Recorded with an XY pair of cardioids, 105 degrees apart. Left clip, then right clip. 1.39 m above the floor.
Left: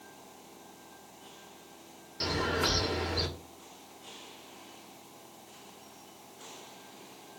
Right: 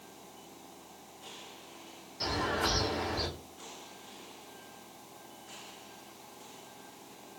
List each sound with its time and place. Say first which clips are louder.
2.2 s a bird: left 1 dB; 50° left, 1.3 m